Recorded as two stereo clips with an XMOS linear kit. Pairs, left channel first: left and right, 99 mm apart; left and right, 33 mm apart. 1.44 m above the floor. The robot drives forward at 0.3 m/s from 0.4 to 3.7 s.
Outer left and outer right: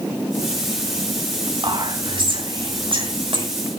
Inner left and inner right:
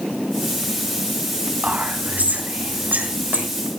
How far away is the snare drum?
I don't hear a snare drum.